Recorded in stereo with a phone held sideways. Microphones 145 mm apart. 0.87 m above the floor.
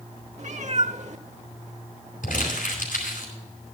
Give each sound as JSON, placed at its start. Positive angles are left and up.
{"t": 0.4, "sound": "a cat meowing", "side_deg": -55, "distance_m": 0.9}
{"t": 2.2, "sound": "crumpling", "side_deg": 80, "distance_m": 4.5}